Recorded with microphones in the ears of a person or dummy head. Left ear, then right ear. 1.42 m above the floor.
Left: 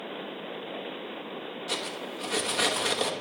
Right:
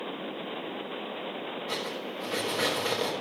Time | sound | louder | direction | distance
1.7 | cutlery clinking | left 3 dB | 25° left (ahead or behind) | 1.3 m